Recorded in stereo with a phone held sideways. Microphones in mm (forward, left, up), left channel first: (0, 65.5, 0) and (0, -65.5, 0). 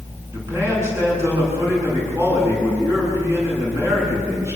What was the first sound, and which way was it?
A man speaking, 20° right (ahead or behind).